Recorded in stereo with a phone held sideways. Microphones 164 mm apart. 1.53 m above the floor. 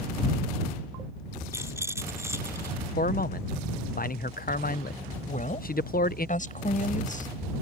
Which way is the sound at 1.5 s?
15° right (ahead or behind).